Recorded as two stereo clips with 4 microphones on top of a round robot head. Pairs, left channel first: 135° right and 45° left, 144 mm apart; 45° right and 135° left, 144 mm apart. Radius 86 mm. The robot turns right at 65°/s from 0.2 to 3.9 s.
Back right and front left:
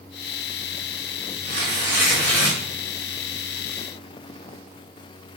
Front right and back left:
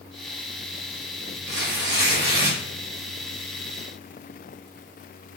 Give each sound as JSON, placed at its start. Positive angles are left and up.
{"t": 1.5, "sound": "tearing paper", "azimuth_deg": 90, "distance_m": 1.8}